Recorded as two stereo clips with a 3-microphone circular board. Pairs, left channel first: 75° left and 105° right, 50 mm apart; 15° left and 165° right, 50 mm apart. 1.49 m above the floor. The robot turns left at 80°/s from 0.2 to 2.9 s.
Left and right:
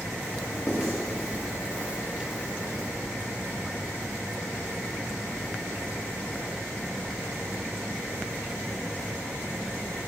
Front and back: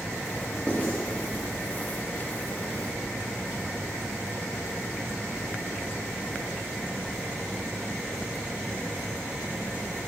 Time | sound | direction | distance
0.7 | writing | 85° left | 3 m